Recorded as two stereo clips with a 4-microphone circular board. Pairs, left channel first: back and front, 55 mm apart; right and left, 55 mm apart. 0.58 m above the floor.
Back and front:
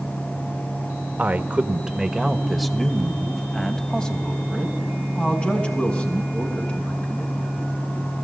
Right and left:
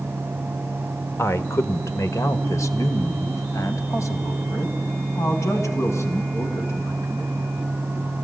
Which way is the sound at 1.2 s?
55° right.